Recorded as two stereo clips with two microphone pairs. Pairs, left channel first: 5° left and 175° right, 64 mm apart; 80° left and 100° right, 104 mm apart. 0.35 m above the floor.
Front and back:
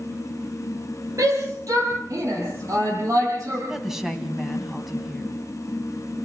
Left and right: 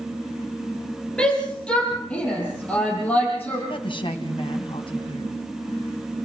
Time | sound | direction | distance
1.2 | a shout | 160° left | 7 m
3.7 | a woman speaking | 105° left | 3 m